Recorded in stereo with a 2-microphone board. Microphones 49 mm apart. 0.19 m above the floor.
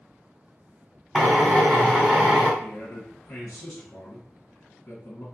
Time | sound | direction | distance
1.1 | a drill | 10° right (ahead or behind) | 1.2 m
2.6 | a man speaking | 40° left (ahead or behind) | 1.4 m